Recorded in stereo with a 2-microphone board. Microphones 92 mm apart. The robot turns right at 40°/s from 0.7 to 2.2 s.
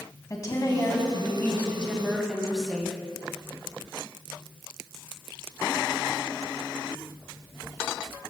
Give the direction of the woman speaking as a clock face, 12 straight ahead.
8 o'clock.